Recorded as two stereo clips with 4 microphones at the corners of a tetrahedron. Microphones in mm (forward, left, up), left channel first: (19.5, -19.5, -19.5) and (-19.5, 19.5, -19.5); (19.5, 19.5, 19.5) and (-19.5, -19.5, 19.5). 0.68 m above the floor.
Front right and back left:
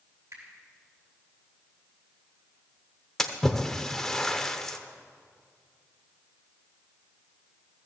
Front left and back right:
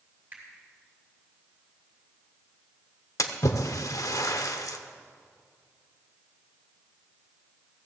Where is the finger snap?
160° left, 5.5 m.